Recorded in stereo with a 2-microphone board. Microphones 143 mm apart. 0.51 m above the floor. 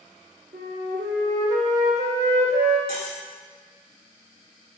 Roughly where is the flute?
Right.